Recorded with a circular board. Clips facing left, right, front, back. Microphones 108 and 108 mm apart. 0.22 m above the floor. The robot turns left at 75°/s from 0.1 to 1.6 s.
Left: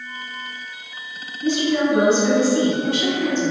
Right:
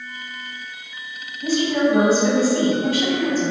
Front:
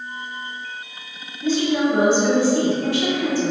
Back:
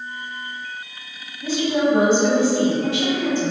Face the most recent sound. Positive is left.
turn(degrees=-115)